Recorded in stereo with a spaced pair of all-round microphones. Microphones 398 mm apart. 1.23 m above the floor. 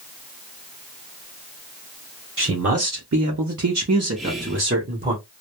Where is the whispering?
Centre (ahead or behind), 0.8 m.